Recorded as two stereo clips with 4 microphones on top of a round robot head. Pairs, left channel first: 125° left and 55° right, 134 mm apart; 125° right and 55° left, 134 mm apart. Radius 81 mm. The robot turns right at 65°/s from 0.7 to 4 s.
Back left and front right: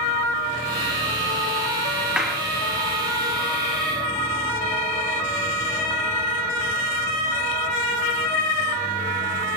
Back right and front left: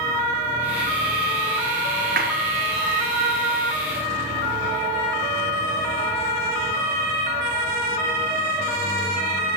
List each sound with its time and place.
2.2 s a clap: 30° left, 3 m; by 2.4 s 45° left, 3 m